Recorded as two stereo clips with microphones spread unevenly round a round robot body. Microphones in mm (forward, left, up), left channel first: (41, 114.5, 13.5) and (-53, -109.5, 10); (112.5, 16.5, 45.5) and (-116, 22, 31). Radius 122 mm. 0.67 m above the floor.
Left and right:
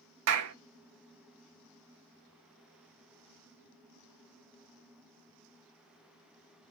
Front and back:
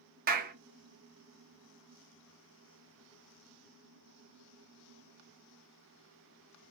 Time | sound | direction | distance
0.3 | a clap | 130° right | 0.6 m